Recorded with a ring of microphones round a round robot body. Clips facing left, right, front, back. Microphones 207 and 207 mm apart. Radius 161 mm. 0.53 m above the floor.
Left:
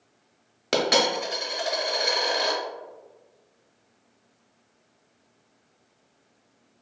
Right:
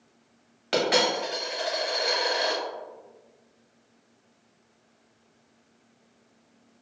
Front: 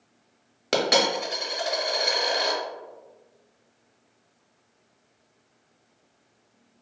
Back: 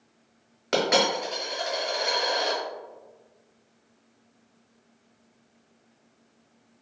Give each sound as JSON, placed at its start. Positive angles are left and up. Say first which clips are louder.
{"t": 0.7, "sound": "a dropped coin", "louder": "left 1 dB, even", "azimuth_deg": 50, "distance_m": 0.6}